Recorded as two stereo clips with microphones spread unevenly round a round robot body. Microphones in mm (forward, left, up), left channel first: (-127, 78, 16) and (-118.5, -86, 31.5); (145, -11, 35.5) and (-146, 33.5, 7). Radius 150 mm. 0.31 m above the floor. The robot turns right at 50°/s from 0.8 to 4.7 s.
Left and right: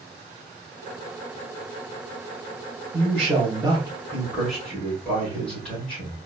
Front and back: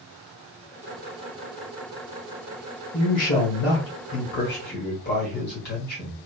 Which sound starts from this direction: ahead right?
A man speaking, at 2.9 s.